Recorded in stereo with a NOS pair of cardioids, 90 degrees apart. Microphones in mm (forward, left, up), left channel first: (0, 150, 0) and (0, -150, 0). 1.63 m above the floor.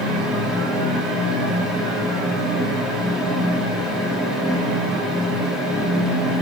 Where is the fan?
Straight ahead, 0.9 m.